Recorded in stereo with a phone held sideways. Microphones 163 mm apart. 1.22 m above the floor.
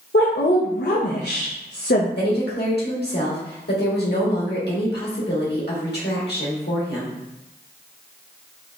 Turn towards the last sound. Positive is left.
turn(degrees=75)  # may be behind; listen again after turning